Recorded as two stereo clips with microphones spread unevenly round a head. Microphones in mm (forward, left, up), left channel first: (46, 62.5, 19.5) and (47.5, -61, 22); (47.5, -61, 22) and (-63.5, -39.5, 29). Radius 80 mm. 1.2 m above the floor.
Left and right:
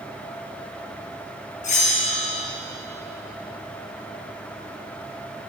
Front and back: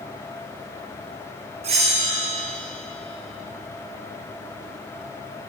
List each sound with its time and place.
1.6 s a bell: 125° left, 1.5 m